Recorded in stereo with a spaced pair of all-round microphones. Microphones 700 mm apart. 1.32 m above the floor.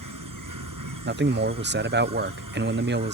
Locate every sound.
0.0 s an insect: 25° right (ahead or behind)
1.1 s a man speaking: 15° right (ahead or behind)